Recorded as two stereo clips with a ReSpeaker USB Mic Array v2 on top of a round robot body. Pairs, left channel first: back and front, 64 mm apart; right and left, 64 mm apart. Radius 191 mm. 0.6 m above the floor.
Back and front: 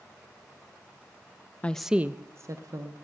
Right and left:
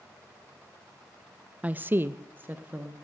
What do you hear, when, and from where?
1.6 s a woman speaking: 135° left, 0.6 m; by 2.9 s 25° left, 1.2 m